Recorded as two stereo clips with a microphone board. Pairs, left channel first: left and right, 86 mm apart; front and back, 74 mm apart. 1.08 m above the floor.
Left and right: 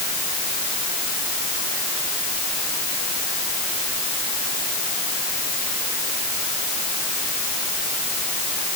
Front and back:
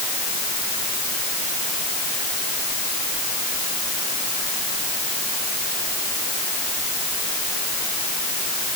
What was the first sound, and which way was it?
Only background noise.